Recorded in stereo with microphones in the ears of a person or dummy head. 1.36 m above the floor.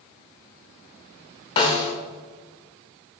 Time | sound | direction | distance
1.6 | a snare drum | 25° left (ahead or behind) | 0.7 m